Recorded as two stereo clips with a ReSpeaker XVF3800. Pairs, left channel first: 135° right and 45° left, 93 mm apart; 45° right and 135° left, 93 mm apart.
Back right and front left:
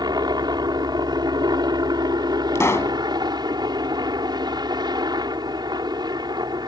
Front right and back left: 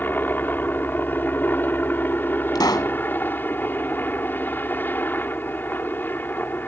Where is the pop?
80° right.